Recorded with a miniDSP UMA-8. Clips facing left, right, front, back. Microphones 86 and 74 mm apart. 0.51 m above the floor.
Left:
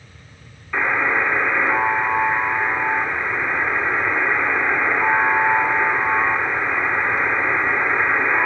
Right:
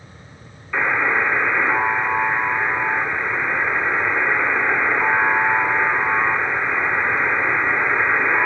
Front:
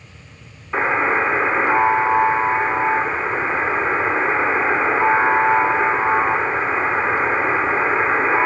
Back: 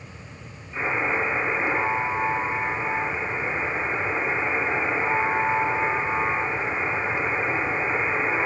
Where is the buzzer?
10° left, 3 m.